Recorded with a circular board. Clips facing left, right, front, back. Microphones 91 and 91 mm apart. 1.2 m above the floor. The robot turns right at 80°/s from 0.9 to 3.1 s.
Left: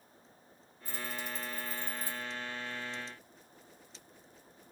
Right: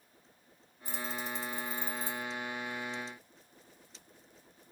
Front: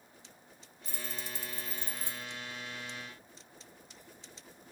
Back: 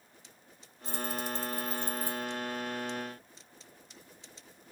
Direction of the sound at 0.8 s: 120° right.